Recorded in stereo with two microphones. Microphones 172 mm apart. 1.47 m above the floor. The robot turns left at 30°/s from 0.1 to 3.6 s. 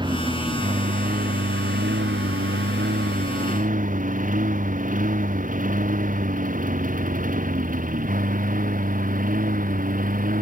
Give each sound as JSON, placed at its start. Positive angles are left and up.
{"t": 0.0, "sound": "a lawn mower", "side_deg": -25}